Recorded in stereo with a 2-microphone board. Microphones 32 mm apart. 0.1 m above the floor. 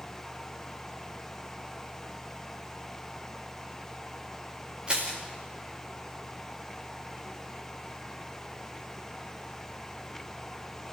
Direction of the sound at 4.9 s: 25° right (ahead or behind).